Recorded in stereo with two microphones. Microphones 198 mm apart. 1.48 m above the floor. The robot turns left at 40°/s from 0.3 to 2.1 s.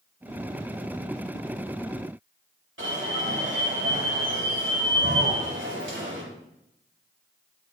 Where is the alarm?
85° right, 4.5 m.